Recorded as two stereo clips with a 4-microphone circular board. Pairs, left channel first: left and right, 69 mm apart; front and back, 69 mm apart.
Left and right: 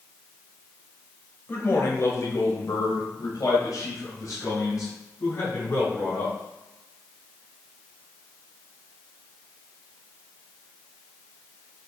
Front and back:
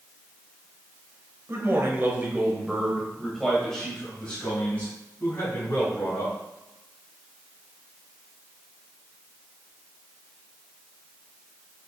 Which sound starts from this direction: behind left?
A man speaking, at 1.5 s.